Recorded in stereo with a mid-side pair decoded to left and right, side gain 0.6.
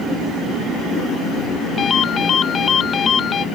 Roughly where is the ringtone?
Ahead left.